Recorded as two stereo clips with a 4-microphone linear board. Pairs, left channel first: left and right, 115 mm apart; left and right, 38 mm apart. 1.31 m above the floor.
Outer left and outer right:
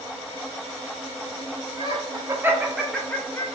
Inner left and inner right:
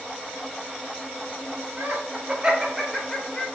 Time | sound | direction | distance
1.8 | laughter | 45° right (ahead or behind) | 0.9 m